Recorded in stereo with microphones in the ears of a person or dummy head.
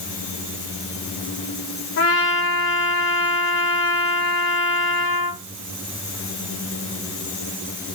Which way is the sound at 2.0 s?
65° left (ahead or behind).